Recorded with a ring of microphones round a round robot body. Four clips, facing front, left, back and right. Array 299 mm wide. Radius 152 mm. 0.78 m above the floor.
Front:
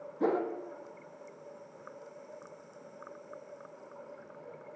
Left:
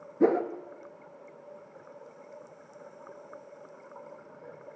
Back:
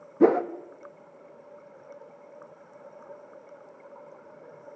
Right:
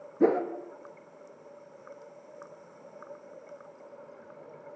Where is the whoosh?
Straight behind, 1.5 m.